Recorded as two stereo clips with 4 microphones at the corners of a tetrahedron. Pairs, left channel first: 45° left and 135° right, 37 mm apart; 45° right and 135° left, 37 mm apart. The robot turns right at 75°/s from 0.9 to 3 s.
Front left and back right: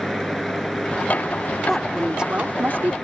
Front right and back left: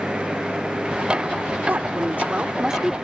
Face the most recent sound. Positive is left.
turn(degrees=-135)